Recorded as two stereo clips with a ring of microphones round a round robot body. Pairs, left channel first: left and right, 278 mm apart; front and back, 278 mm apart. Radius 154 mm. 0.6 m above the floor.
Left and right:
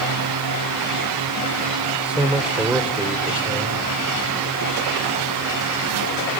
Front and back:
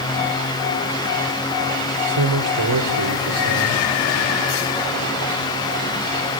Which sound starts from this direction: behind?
A man speaking, at 2.0 s.